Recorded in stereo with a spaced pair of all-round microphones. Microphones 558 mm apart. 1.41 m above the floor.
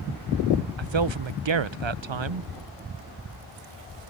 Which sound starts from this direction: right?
A man speaking, at 0.8 s.